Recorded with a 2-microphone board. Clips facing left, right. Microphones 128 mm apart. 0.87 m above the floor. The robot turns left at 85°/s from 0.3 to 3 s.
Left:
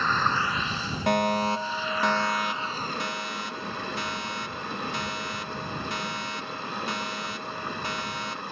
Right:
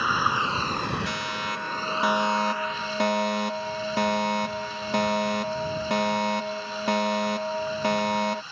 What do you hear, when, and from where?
0.0 s running water: 10° right; by 8.5 s 120° left
1.1 s a fire alarm: 75° left; by 8.4 s 90° right